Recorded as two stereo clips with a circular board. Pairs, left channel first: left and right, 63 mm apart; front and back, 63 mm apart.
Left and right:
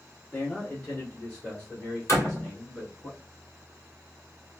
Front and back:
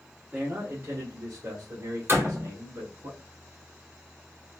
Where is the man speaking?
130° left, 0.9 m; by 3.1 s 165° left, 2 m.